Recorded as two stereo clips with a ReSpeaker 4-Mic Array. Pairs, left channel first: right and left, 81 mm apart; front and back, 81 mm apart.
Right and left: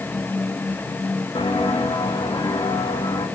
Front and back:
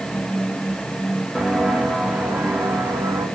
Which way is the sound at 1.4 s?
95° right.